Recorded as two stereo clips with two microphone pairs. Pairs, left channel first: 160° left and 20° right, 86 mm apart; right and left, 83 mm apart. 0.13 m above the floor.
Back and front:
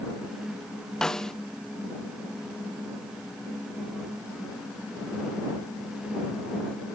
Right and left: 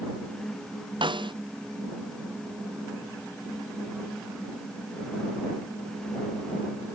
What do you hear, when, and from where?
1.0 s a snare drum: 75° left